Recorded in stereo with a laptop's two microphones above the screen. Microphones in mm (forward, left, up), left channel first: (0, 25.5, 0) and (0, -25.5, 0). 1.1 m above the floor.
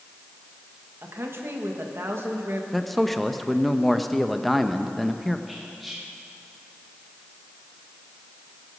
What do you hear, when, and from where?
1.0 s a woman speaking: 55° right (ahead or behind), 1.3 m
2.7 s a man speaking: centre (ahead or behind), 0.8 m
5.5 s whispering: centre (ahead or behind), 1.6 m